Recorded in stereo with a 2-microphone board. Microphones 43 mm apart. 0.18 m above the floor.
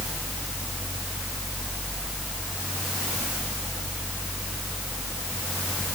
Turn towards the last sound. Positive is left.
No sound to turn to.